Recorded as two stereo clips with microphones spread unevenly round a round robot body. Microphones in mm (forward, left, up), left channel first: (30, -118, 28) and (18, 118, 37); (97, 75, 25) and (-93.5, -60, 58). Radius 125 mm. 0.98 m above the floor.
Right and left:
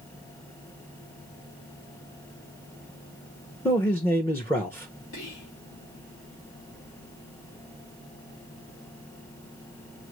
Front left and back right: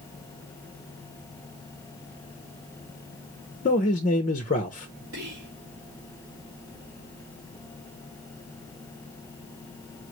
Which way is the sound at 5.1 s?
110° right.